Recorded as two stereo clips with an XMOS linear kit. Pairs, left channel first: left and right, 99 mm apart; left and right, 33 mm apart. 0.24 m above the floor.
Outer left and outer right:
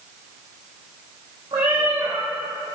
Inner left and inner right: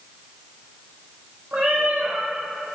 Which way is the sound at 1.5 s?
55° right (ahead or behind).